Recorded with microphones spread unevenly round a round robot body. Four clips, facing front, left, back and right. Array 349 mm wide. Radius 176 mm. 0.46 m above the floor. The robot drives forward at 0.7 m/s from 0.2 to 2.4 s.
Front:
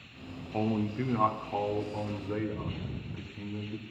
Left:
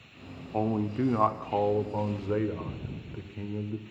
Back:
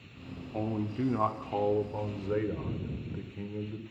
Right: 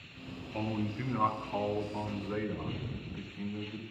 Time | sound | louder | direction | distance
0.5 | a man speaking | left 7 dB, front 2 dB | 85° left | 1.1 m